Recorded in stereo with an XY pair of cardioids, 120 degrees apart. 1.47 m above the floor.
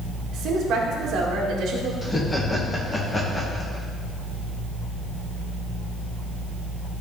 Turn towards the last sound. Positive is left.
turn(degrees=20)